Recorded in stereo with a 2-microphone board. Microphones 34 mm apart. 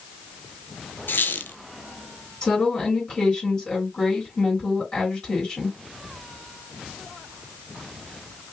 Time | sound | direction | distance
1.1 | a squeak | 80° left | 0.7 m
2.4 | a woman speaking | 30° left (ahead or behind) | 3 m